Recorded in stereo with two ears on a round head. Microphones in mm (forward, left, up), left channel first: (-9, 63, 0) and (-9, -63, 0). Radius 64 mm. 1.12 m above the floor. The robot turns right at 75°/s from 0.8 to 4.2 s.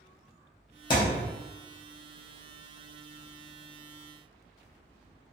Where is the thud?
35° left (ahead or behind), 0.7 m; by 1.3 s 50° left (ahead or behind), 0.7 m.